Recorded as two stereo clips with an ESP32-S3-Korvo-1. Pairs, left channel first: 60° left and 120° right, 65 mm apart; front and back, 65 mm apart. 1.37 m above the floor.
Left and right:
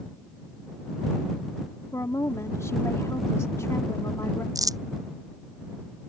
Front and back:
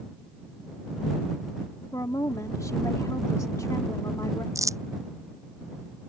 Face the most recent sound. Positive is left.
turn(degrees=-145)